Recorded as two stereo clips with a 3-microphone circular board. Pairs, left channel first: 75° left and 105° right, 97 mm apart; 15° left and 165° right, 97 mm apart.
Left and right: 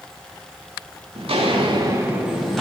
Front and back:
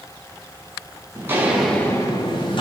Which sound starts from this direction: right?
Footsteps, at 1.1 s.